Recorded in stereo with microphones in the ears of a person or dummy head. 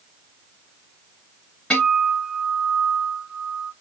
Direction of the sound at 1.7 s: 10° left (ahead or behind).